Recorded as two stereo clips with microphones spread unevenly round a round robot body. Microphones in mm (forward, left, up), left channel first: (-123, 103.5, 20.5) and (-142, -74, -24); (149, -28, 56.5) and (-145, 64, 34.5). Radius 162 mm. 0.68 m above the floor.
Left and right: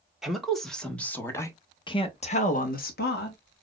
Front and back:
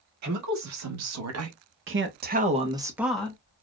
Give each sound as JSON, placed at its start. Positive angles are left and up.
{"t": 0.2, "sound": "a woman speaking", "azimuth_deg": -175, "distance_m": 2.0}